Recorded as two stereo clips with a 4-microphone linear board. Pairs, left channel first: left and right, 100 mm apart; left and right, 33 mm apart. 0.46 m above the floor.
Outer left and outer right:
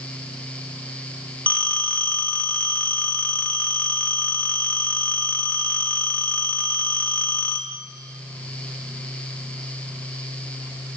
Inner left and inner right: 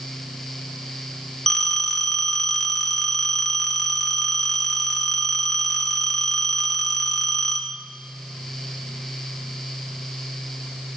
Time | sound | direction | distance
1.5 | a phone ringing | 15° left (ahead or behind) | 0.7 m